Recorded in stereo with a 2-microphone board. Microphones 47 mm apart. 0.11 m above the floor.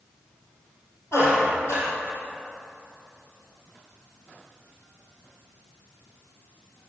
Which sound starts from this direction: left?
A squeak, at 1.1 s.